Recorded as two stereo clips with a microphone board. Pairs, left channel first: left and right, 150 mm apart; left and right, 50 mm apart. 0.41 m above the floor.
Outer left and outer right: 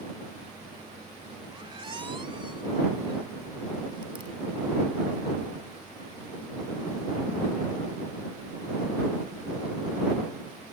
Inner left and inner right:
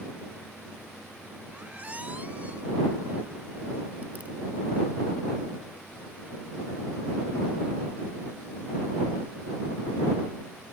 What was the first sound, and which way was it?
A squeak, 35° right (ahead or behind).